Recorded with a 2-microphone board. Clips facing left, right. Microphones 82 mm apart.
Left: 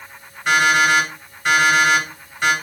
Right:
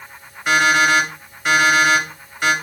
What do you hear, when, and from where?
0.5 s an alarm clock: 10° right (ahead or behind), 3 m